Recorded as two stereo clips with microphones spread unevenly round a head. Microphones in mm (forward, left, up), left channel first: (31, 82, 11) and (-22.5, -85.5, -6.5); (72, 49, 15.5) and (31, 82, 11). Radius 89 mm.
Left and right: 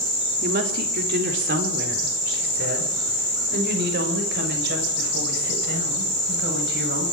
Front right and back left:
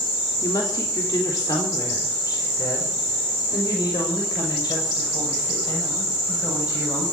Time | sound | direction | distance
0.4 | a woman speaking | 70° right | 3 m